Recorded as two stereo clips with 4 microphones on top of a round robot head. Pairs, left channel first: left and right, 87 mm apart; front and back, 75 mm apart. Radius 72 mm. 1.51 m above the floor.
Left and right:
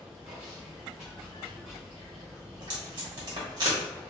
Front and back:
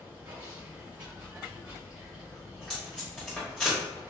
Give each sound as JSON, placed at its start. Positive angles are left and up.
{"t": 0.0, "sound": "running water", "azimuth_deg": -155, "distance_m": 1.2}
{"t": 2.5, "sound": "tape being pulled", "azimuth_deg": -80, "distance_m": 1.1}